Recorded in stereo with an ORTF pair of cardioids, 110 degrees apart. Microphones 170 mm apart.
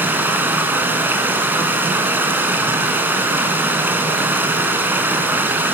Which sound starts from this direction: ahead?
Running water, at 0.0 s.